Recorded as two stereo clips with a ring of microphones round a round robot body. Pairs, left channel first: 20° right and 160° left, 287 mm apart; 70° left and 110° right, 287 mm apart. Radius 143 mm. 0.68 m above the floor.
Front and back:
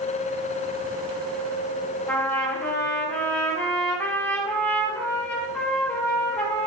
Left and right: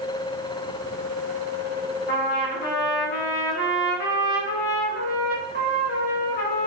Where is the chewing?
No chewing in this recording.